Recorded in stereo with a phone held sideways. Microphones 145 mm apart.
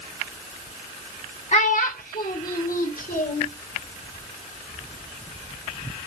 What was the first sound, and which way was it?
A child speaking, 50° left (ahead or behind).